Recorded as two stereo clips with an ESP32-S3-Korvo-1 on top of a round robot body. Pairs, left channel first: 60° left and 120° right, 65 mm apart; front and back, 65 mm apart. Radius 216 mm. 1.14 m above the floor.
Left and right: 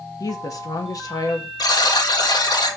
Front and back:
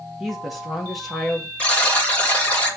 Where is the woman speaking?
95° left, 1.6 m.